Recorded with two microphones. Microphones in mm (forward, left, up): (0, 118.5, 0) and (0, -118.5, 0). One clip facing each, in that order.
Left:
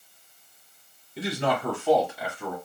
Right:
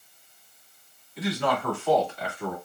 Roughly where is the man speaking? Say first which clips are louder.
Even; left.